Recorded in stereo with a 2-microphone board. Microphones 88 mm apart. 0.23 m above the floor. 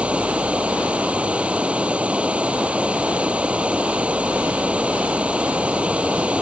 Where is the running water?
15° right (ahead or behind).